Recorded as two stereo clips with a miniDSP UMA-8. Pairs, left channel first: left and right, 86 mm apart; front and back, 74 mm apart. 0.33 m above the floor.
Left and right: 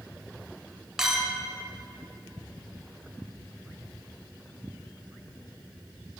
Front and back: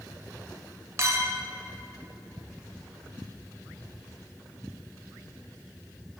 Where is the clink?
170° right, 0.6 m.